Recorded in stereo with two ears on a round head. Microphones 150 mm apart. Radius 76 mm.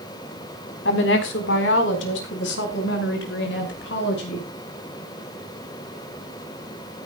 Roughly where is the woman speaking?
Left.